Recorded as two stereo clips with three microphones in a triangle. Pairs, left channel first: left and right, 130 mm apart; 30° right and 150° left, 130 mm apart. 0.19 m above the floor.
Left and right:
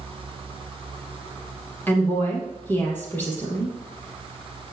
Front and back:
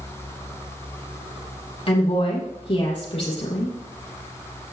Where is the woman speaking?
15° left, 5 m.